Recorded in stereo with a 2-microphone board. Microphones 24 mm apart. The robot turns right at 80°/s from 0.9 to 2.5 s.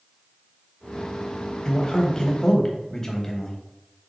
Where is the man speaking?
20° left (ahead or behind), 1.0 m.